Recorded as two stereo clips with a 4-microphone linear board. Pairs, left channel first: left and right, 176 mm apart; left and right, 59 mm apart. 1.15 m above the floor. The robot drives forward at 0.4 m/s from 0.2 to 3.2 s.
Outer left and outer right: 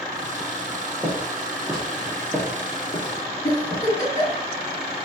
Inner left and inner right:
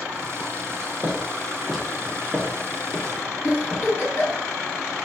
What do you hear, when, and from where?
1.0 s footsteps: 15° right (ahead or behind), 1.5 m; by 3.8 s 40° left (ahead or behind), 1.8 m
3.4 s a giggle: 40° left (ahead or behind), 1.8 m